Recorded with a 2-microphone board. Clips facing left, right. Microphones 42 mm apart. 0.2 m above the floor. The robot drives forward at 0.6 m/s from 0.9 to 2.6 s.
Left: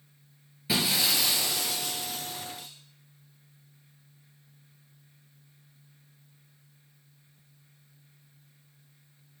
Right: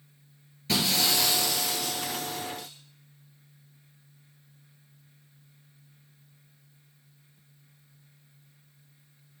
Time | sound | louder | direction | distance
0.7 | breaking glass | right 1 dB | 10° left (ahead or behind) | 2.5 m